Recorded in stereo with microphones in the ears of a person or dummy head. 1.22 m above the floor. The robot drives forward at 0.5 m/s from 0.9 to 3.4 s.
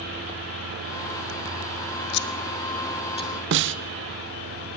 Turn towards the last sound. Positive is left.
turn(degrees=-60)  # may be behind; listen again after turning